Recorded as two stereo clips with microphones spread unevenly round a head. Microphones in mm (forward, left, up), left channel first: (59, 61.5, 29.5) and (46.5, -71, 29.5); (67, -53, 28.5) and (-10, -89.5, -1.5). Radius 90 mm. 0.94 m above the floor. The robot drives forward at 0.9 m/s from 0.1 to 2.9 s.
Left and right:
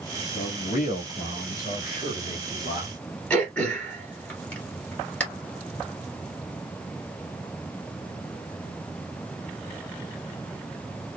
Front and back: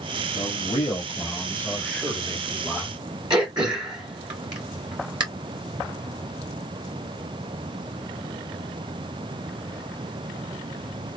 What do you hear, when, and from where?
0.3 s a man speaking: 65° left, 1.8 m; by 2.9 s 135° left, 2.5 m
3.3 s throat clearing: 165° left, 1.8 m